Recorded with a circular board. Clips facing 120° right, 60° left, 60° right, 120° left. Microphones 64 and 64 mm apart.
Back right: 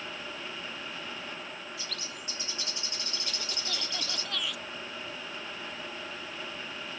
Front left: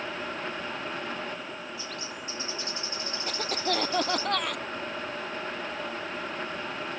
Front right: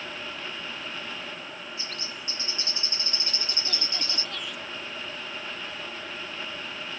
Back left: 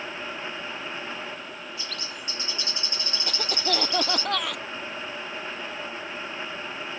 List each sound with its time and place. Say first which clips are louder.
1.8 s a bird: front left 4 dB, back left 1 dB; 120° right
3.3 s a cough: front left 12 dB, back left 7 dB; 95° left